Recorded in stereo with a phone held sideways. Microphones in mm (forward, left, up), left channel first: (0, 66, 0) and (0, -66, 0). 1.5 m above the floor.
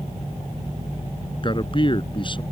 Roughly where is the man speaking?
Left.